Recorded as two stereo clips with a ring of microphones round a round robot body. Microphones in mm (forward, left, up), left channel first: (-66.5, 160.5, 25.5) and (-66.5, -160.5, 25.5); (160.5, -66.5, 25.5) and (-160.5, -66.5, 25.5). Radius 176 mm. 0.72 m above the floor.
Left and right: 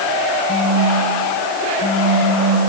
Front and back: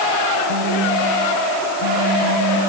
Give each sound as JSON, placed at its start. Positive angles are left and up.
{"t": 0.5, "sound": "a phone buzzing", "azimuth_deg": 150, "distance_m": 5.5}